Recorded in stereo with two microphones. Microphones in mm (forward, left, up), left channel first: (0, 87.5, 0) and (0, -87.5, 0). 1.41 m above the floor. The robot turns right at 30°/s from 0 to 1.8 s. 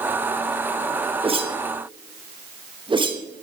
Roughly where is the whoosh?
Right.